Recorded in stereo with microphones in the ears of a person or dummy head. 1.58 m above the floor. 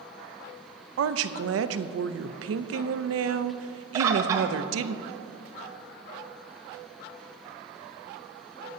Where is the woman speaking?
75° right (ahead or behind), 0.6 m.